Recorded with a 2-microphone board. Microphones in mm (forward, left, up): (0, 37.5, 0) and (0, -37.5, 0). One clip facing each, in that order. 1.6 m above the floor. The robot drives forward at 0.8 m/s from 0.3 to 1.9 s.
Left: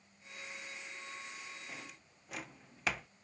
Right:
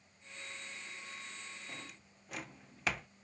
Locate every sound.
1.7 s a drawer: centre (ahead or behind)